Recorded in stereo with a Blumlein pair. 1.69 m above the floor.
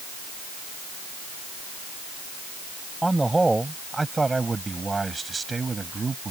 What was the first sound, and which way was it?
A man speaking, 5° right.